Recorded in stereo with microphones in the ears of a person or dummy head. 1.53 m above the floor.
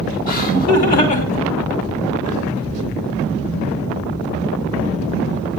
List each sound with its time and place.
0.3 s laughter: 50° left (ahead or behind), 5.5 m; by 2.5 s 45° left (ahead or behind), 8.5 m